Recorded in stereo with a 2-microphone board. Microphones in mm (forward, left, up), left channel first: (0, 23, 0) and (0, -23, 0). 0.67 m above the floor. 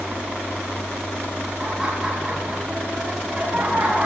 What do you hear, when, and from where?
1.6 s laughter: 10° right (ahead or behind), 4.5 m; by 4.1 s 25° right (ahead or behind), 5 m